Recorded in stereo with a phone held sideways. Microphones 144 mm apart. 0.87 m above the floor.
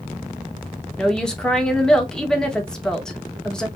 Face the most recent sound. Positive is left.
turn(degrees=5)  # may be behind; listen again after turning